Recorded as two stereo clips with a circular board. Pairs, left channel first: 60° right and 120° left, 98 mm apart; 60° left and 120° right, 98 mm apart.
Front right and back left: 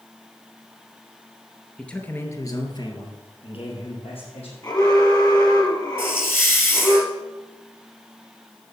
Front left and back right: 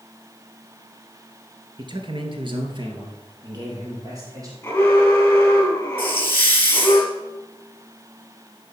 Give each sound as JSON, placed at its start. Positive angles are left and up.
{"t": 1.8, "sound": "a man speaking", "azimuth_deg": -140, "distance_m": 2.0}
{"t": 4.6, "sound": "an alarm", "azimuth_deg": -10, "distance_m": 3.0}
{"t": 6.0, "sound": "a hiss", "azimuth_deg": 0, "distance_m": 1.7}